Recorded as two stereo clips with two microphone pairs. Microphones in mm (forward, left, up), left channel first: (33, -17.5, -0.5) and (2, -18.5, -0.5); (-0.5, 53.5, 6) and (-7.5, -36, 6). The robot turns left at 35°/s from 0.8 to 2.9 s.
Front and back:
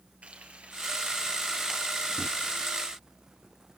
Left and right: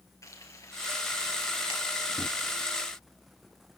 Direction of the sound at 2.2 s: Straight behind.